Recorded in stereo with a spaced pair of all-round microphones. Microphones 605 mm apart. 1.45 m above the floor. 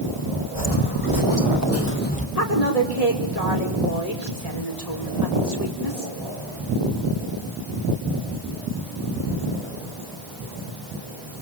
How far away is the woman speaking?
About 5.5 m.